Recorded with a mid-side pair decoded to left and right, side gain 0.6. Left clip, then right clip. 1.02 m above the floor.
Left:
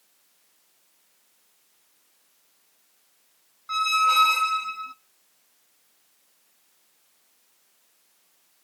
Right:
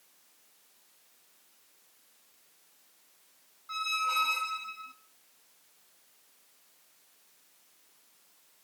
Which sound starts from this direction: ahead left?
A squeak, at 3.7 s.